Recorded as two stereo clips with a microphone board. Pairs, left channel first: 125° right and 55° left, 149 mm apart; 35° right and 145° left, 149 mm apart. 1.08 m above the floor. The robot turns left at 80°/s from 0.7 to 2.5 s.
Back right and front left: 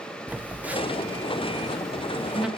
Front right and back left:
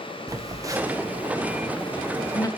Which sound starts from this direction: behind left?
A phone buzzing, at 0.3 s.